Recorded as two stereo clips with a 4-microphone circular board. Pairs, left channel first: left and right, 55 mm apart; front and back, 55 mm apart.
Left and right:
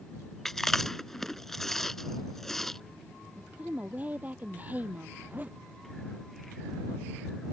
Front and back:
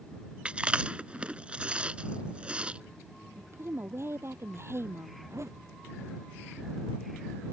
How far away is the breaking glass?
No breaking glass in this recording.